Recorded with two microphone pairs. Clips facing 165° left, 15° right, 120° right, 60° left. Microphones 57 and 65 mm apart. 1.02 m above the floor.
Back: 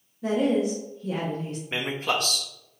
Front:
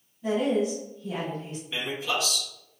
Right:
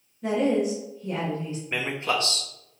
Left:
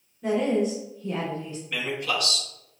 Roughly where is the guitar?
I don't hear a guitar.